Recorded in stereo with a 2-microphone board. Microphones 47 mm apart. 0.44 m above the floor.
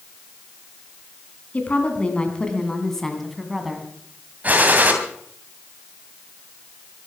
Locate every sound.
1.5 s a woman speaking: 30° left (ahead or behind), 3 m; by 3.9 s 10° right (ahead or behind), 3 m
4.4 s a gunshot: 35° right (ahead or behind), 2.5 m